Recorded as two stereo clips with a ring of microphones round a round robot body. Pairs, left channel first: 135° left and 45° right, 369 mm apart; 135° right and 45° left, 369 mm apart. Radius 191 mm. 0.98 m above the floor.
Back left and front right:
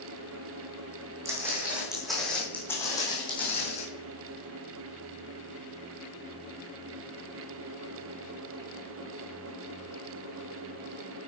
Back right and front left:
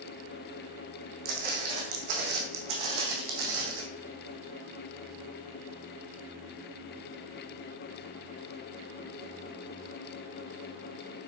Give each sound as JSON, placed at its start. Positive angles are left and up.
{"t": 1.2, "sound": "footsteps", "azimuth_deg": 35, "distance_m": 3.5}